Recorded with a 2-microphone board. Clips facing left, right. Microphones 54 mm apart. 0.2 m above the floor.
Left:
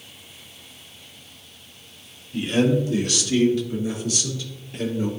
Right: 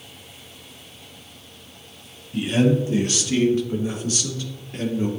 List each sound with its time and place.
2.3 s a man speaking: 10° right (ahead or behind), 1.3 m; by 5.1 s 40° right (ahead or behind), 3.5 m